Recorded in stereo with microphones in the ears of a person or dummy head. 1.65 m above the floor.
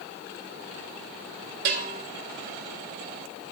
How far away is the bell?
About 3 m.